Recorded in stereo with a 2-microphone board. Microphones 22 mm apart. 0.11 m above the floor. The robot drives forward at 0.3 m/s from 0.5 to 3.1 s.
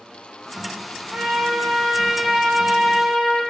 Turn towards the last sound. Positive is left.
turn(degrees=-55)  # may be behind; listen again after turning